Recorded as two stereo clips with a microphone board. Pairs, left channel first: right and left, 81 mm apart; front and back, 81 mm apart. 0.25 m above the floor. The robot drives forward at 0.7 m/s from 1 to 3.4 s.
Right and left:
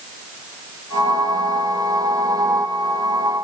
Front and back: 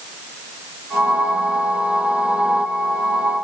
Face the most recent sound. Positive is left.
No sound to turn to.